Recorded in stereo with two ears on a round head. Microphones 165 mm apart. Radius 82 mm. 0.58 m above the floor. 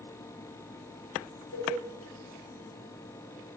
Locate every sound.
1.5 s a cowbell: 75° left (ahead or behind), 4 m